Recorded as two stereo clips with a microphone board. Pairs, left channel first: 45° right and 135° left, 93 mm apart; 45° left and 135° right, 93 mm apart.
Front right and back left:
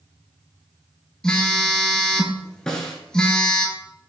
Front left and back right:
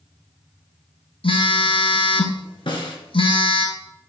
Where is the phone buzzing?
35° left, 0.7 m.